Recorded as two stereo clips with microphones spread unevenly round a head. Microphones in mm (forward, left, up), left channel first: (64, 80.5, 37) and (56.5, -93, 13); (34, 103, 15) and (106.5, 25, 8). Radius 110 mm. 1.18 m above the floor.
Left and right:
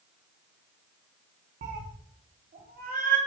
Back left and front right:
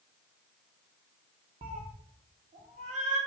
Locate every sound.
1.6 s a cat meowing: 85° right, 0.9 m; by 3.2 s 50° right, 1.6 m